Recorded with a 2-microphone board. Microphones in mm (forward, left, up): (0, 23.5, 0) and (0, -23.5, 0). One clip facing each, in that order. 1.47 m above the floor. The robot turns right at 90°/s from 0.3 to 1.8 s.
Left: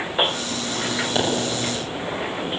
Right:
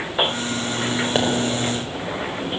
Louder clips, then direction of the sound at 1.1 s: Right 2 dB; 30° right (ahead or behind).